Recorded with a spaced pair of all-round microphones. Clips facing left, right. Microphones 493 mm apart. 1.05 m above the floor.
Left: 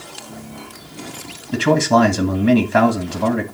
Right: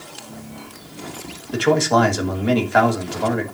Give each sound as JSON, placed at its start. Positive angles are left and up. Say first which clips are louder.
{"t": 1.5, "sound": "a man speaking", "louder": "left 2 dB", "side_deg": 45, "distance_m": 1.7}